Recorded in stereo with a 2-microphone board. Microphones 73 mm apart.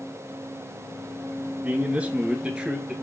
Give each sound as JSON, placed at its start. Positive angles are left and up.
{"t": 1.6, "sound": "a man speaking", "side_deg": -20, "distance_m": 1.2}